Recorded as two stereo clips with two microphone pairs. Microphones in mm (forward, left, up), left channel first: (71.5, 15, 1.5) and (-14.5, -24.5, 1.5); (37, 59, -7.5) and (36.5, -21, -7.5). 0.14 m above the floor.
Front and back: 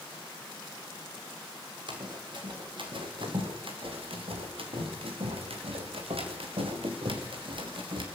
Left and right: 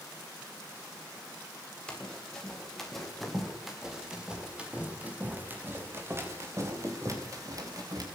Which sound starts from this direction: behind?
Running footsteps, at 1.9 s.